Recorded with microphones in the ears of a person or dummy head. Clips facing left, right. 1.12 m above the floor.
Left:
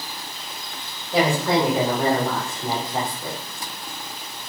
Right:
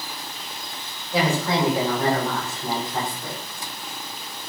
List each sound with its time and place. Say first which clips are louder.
1.1 s a woman speaking: left 3 dB; 25° left (ahead or behind), 3.5 m; by 3.4 s 10° left (ahead or behind), 2 m